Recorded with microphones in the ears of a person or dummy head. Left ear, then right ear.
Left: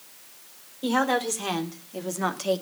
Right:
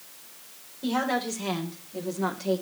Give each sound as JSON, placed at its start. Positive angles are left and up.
{"t": 0.8, "sound": "a woman speaking", "side_deg": 40, "distance_m": 4.0}